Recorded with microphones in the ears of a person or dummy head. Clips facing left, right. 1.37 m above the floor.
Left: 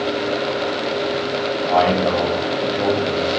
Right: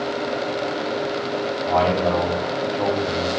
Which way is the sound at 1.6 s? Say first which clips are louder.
Left 3 dB; 10° left (ahead or behind).